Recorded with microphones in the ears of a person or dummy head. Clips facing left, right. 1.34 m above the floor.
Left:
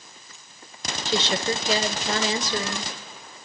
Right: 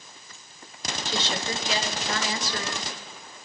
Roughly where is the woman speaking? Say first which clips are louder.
Left 6 dB; left.